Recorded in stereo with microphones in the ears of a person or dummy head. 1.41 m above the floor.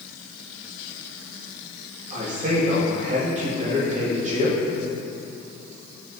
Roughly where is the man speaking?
Right.